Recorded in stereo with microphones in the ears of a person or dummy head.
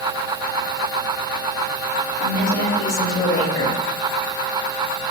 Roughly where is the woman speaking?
Left.